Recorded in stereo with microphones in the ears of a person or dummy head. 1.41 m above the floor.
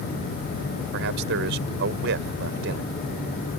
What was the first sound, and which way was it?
A man speaking, 70° right (ahead or behind).